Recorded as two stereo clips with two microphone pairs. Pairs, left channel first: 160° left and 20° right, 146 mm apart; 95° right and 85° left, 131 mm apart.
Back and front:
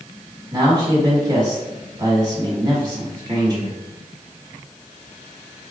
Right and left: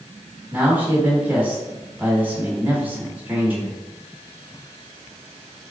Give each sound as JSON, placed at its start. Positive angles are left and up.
{"t": 0.5, "sound": "a man speaking", "azimuth_deg": 20, "distance_m": 1.5}